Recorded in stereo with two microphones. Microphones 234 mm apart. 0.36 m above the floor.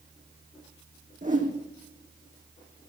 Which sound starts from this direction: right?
A whoosh, at 1.2 s.